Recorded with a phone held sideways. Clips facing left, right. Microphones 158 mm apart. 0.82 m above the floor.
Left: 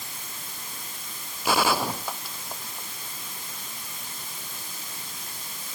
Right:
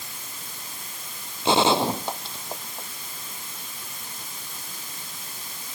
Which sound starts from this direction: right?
A gunshot, at 1.4 s.